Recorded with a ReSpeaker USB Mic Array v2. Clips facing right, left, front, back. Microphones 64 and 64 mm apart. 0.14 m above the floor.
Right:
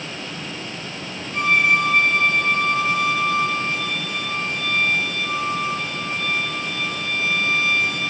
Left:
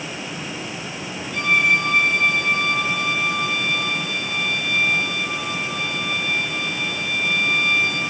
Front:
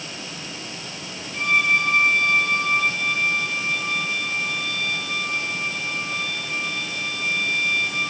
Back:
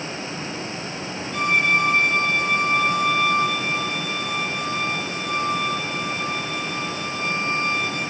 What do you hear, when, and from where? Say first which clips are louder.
1.3 s a violin: right 1 dB, even; 150° right, 3 m